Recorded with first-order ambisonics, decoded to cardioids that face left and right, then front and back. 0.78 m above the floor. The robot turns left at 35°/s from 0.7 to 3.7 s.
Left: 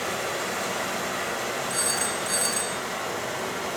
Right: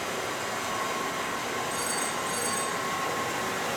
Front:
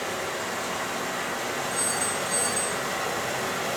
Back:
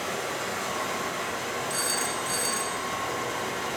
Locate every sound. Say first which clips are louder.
0.0 s running water: left 3 dB, front 1 dB; 95° left, 3 m; by 3.8 s 10° right, 3 m
1.7 s a phone ringing: left 3 dB, front 1 dB; 140° left, 1.6 m; by 2.8 s 100° left, 1.6 m